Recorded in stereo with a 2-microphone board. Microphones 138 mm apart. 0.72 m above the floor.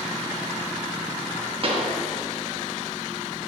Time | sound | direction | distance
1.6 | a pop | 45° right (ahead or behind) | 0.9 m